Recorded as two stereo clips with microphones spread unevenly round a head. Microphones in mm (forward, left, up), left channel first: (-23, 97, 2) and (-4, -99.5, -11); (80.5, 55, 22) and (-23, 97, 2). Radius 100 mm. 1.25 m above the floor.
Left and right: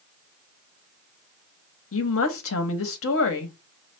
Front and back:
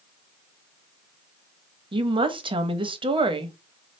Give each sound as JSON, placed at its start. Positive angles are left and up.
{"t": 1.9, "sound": "a woman speaking", "azimuth_deg": 110, "distance_m": 1.1}